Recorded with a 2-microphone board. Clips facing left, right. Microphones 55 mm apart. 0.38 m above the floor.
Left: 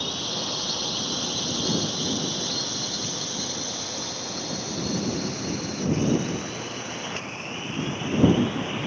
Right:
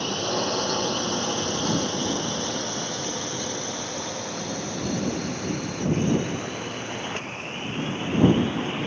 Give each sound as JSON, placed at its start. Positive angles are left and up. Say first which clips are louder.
{"t": 0.0, "sound": "a drone", "louder": "right 6 dB", "side_deg": -45}